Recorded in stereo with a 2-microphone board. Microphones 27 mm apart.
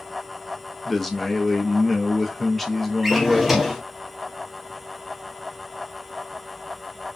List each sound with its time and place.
0.8 s a man speaking: 5° left (ahead or behind), 0.6 m
3.0 s a drawer: 10° right (ahead or behind), 0.7 m